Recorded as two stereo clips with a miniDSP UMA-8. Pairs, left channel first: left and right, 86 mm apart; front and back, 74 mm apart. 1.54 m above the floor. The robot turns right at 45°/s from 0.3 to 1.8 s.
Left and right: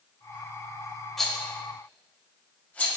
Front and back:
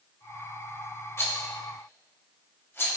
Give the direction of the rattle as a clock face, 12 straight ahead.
12 o'clock.